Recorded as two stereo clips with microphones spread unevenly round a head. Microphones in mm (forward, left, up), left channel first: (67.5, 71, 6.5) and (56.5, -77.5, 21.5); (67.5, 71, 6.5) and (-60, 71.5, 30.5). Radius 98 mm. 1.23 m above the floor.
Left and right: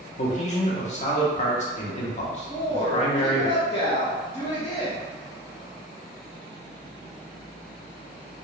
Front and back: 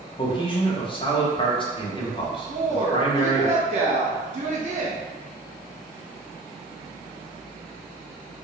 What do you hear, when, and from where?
0.2 s a man speaking: 45° left, 1.2 m
2.5 s a woman speaking: 150° left, 1.2 m